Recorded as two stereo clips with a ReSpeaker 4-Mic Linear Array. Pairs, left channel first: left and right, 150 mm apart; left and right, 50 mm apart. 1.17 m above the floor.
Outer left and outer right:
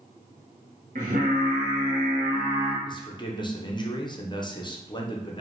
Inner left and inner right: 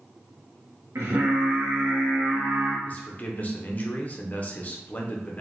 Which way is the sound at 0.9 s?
65° right (ahead or behind).